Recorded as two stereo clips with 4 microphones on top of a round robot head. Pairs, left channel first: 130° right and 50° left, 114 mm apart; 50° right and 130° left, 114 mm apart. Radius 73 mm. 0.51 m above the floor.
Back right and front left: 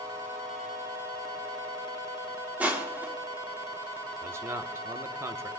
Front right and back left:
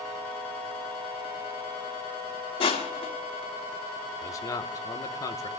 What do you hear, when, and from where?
2.6 s crushing: 25° right, 2.5 m
4.2 s a man speaking: 5° right, 1.2 m